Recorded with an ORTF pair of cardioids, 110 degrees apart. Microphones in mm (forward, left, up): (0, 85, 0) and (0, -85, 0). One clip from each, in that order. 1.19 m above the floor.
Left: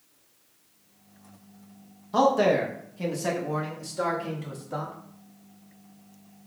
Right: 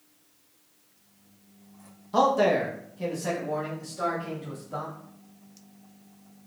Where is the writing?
No writing in this recording.